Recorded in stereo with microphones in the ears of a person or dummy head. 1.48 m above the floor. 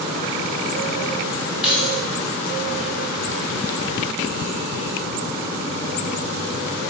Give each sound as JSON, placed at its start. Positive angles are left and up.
{"t": 1.6, "sound": "keys jangling", "side_deg": -5, "distance_m": 1.2}